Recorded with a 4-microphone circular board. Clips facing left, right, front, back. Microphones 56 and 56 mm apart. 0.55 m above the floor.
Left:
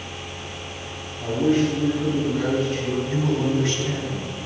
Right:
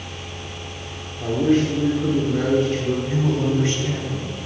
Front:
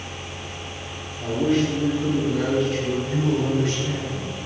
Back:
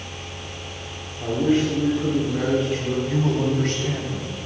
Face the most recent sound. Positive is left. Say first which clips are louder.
# even, back 2 dB
turn(degrees=-150)